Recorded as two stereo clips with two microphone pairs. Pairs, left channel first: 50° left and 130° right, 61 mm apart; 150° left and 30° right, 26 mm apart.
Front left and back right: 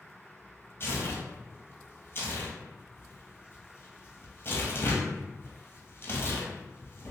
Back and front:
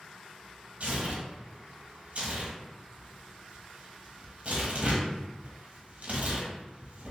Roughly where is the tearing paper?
Ahead.